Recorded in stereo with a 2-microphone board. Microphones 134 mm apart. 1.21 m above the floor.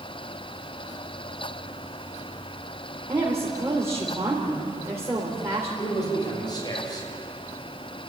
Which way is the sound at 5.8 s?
30° left (ahead or behind).